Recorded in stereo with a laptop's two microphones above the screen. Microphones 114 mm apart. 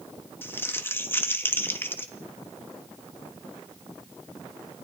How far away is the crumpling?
About 1.6 m.